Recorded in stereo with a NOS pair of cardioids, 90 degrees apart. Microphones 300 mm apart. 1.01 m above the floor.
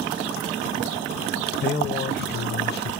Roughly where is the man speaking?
Ahead left.